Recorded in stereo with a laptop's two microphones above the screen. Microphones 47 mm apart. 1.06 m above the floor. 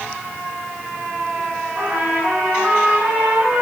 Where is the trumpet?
25° right (ahead or behind), 5 m.